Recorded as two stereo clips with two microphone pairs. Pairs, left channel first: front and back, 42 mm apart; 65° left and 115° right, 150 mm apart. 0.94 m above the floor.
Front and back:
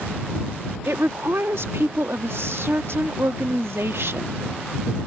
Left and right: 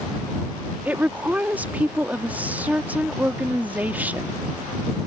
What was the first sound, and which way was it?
A woman speaking, 165° left.